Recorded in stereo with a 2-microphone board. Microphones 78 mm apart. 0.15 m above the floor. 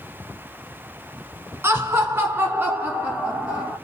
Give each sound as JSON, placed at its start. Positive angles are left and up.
{"t": 1.6, "sound": "laughter", "side_deg": -30, "distance_m": 1.3}